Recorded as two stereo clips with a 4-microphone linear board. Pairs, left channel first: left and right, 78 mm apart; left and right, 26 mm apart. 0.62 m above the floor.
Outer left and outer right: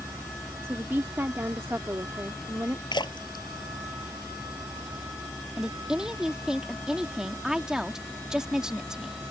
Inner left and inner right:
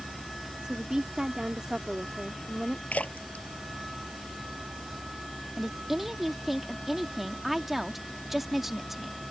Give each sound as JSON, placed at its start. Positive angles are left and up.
{"t": 0.6, "sound": "a woman speaking", "side_deg": -35}
{"t": 2.9, "sound": "a splash", "side_deg": 80}
{"t": 5.6, "sound": "a woman speaking", "side_deg": -10}